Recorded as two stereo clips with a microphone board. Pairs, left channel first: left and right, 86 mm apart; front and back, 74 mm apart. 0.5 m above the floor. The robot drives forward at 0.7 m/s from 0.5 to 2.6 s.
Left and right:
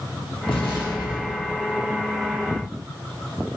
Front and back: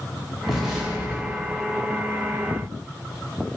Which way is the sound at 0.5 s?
90° left.